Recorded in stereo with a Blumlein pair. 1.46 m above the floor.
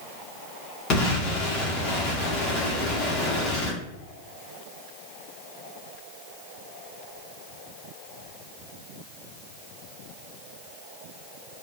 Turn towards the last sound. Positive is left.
turn(degrees=35)